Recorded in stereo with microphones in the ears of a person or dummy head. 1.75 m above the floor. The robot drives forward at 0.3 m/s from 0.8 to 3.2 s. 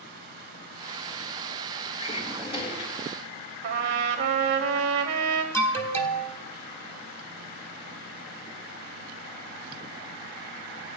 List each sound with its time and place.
2.0 s a drawer: 30° left (ahead or behind), 1.8 m
3.6 s a trumpet: 45° right (ahead or behind), 1.4 m
5.5 s an alarm: 10° left (ahead or behind), 1.5 m